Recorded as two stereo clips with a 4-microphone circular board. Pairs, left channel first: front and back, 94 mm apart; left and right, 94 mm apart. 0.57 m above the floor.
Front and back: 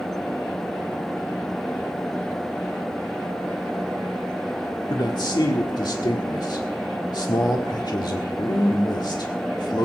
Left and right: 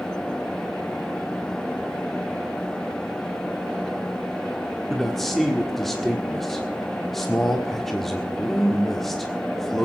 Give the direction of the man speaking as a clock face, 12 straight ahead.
12 o'clock.